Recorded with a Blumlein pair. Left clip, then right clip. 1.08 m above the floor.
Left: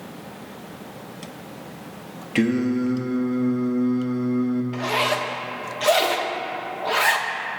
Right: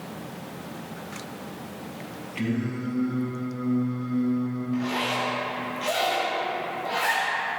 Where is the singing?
50° left, 1.2 m.